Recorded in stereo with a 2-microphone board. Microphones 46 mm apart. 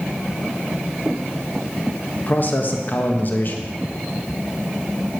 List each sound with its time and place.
2.3 s a man speaking: 45° left (ahead or behind), 1.2 m